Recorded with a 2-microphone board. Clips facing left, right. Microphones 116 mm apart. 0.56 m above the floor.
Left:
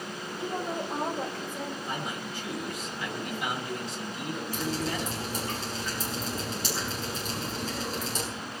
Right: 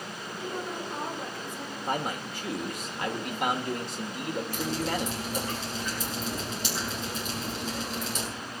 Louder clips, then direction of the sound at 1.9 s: Right 4 dB; 60° right (ahead or behind).